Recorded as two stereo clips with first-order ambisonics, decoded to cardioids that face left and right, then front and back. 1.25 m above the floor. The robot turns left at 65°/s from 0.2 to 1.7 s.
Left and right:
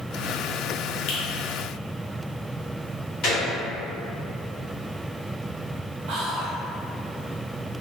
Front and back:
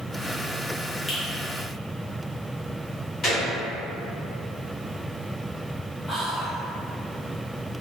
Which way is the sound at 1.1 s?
75° left.